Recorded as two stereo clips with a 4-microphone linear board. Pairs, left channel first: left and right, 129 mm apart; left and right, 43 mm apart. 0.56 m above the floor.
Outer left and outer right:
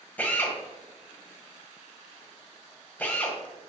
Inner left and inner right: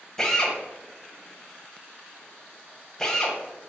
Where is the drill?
15° left (ahead or behind), 1.4 m.